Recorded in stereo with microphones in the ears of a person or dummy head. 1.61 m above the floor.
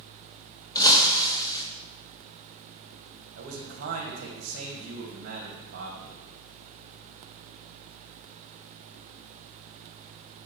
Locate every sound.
0.8 s breaking glass: 15° left (ahead or behind), 1.0 m
3.4 s a man speaking: 50° right (ahead or behind), 1.6 m